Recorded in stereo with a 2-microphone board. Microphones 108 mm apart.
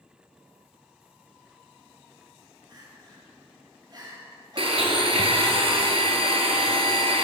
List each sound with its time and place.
2.7 s crying: 40° right (ahead or behind), 2 m
4.6 s a blender: 65° right (ahead or behind), 0.9 m